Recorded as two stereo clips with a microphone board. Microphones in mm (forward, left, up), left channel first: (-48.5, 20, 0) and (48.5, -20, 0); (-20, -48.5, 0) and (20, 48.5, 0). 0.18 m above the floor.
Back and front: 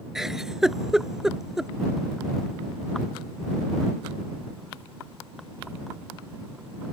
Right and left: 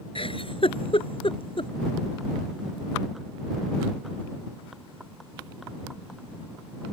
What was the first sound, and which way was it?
A giggle, 105° right.